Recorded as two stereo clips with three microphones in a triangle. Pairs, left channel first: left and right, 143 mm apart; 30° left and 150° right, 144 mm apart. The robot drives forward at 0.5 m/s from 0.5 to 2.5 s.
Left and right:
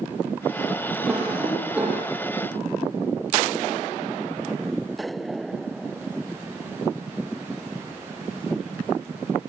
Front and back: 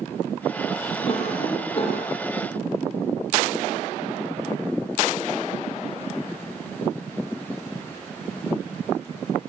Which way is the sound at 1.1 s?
10° right.